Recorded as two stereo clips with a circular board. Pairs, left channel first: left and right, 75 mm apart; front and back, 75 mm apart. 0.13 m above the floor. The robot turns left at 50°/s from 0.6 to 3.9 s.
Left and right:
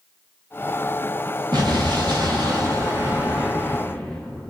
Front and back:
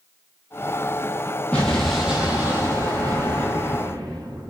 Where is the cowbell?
I don't hear a cowbell.